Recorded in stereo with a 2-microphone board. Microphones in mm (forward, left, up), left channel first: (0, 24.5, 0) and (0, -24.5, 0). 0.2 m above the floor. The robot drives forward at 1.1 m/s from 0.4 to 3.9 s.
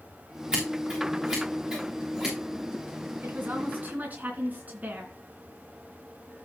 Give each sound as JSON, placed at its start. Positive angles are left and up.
{"t": 0.5, "sound": "scissors", "side_deg": -15, "distance_m": 5.0}
{"t": 3.2, "sound": "a woman speaking", "side_deg": -40, "distance_m": 2.5}